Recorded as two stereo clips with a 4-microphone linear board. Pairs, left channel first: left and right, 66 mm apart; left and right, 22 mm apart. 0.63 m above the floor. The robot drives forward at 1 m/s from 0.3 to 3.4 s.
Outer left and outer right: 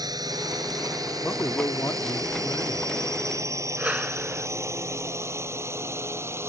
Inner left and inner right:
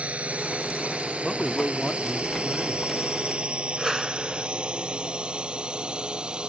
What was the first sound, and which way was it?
A drone, 75° right (ahead or behind).